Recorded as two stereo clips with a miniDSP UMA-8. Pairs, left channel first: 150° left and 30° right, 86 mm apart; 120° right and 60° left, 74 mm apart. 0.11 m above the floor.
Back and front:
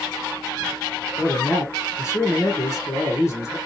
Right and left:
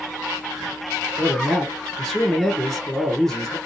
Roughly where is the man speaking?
Behind.